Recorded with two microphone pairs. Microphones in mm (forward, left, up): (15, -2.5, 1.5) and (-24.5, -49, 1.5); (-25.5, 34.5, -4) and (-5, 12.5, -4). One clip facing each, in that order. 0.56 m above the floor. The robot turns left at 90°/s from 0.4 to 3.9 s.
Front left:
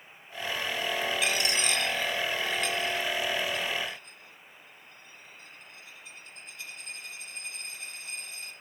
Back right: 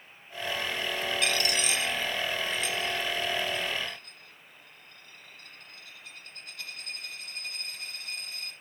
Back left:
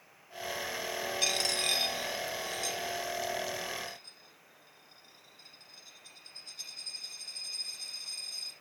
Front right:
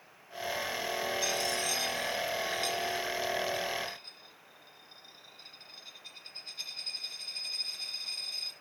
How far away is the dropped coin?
About 1.7 m.